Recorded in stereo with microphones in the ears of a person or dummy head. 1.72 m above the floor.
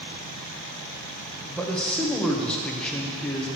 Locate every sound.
1.5 s a man speaking: 5° left (ahead or behind), 1.2 m